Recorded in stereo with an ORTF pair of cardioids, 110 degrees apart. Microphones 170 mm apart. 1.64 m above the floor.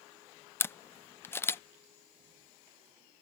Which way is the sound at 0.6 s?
15° left.